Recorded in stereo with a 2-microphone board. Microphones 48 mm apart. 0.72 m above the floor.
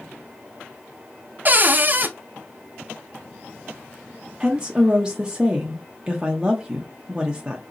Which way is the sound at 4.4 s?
15° right (ahead or behind).